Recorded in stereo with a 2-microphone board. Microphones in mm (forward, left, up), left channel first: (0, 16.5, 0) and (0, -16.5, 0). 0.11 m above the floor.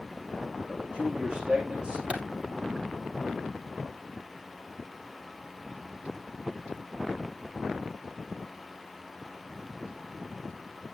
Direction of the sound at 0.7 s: 35° right (ahead or behind).